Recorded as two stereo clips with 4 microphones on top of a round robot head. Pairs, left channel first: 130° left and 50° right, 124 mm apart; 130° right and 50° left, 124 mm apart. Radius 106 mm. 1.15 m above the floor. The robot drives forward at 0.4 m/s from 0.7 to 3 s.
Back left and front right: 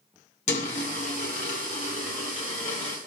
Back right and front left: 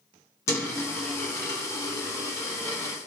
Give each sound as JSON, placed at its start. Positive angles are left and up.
{"t": 0.5, "sound": "a dropped coin", "azimuth_deg": 160, "distance_m": 1.3}